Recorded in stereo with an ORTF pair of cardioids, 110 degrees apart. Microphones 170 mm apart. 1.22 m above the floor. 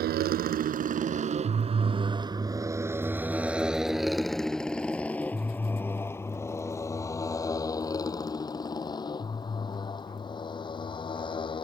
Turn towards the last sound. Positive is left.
turn(degrees=30)